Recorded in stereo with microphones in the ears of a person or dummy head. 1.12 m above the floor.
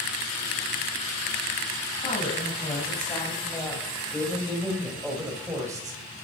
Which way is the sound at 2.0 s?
35° left (ahead or behind).